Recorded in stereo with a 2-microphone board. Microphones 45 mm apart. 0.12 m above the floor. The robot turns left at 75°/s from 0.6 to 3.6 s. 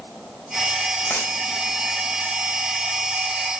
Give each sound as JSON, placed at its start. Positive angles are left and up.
{"t": 1.1, "sound": "a dropped coin", "side_deg": 40, "distance_m": 4.0}